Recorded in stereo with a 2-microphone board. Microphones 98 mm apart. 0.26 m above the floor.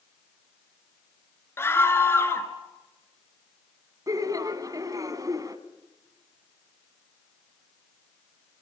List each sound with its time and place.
1.6 s a scream: 25° left (ahead or behind), 3 m
4.1 s laughter: 35° right (ahead or behind), 1.9 m